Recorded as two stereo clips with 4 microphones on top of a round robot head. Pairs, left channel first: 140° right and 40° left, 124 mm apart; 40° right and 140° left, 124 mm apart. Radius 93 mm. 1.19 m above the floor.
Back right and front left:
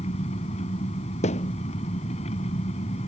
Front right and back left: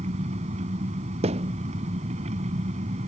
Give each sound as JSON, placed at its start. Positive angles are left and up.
{"t": 0.0, "sound": "an engine running", "azimuth_deg": 180}
{"t": 1.2, "sound": "a thud", "azimuth_deg": -175}